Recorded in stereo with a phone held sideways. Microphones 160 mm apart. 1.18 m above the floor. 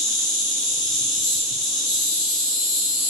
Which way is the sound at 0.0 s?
Centre (ahead or behind).